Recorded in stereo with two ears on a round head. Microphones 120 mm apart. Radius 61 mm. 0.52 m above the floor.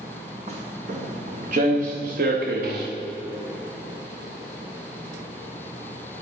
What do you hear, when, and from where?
0.5 s footsteps: 45° right (ahead or behind), 3 m; by 2.9 s 80° right, 2.5 m